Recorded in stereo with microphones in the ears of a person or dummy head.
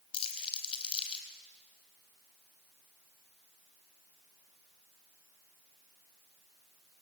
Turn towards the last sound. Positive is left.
turn(degrees=35)  # may be behind; listen again after turning